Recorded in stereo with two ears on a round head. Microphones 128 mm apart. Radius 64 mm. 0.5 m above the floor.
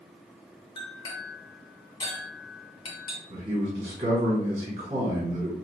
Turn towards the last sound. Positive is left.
turn(degrees=-40)  # may be behind; listen again after turning